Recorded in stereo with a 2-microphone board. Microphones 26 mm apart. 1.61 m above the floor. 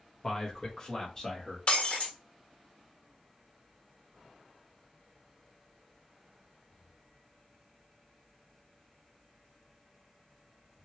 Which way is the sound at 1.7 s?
55° left (ahead or behind).